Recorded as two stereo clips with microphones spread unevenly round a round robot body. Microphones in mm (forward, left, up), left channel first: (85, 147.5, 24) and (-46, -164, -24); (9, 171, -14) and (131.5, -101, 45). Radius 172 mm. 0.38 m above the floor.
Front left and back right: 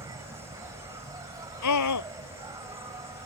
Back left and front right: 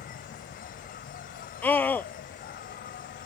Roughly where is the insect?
Behind.